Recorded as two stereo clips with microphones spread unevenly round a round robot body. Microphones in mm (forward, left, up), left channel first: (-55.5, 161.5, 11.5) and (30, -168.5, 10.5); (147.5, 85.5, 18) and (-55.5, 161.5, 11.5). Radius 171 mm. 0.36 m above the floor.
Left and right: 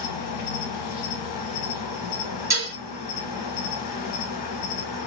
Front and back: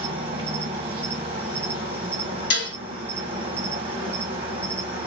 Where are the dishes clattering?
5° left, 2 m.